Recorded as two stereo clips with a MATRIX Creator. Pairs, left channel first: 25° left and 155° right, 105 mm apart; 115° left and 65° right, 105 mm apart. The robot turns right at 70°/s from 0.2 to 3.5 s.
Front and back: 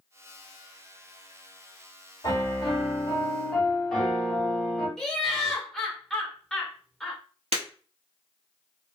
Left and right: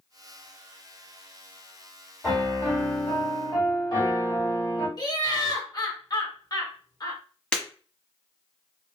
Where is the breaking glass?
165° right, 1.3 m.